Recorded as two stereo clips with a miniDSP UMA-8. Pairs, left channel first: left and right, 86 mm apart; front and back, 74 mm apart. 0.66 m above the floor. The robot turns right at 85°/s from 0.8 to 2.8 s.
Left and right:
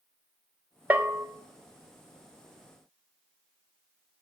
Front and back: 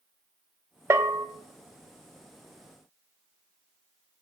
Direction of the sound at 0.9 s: 155° right.